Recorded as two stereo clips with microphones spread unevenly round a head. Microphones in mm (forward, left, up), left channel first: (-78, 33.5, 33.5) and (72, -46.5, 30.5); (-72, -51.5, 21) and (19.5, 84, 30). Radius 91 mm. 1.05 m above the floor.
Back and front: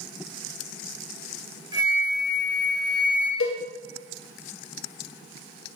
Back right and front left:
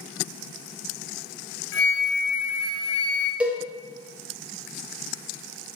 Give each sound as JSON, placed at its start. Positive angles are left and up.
{"t": 1.7, "sound": "a flute", "azimuth_deg": -95, "distance_m": 0.8}
{"t": 3.4, "sound": "a cowbell", "azimuth_deg": 140, "distance_m": 0.6}